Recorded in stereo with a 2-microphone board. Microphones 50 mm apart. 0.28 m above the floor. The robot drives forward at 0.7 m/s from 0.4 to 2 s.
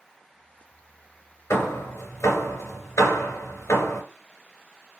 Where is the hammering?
70° left (ahead or behind), 3 m; by 4.0 s 65° left (ahead or behind), 3 m.